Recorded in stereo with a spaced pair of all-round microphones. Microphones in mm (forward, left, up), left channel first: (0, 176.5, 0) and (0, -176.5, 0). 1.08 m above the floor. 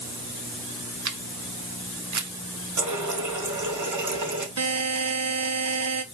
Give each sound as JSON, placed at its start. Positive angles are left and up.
{"t": 1.1, "sound": "a camera shutter", "side_deg": -55, "distance_m": 0.5}
{"t": 2.8, "sound": "a running tap", "side_deg": -55, "distance_m": 0.8}
{"t": 4.6, "sound": "a buzzer", "side_deg": -45, "distance_m": 0.5}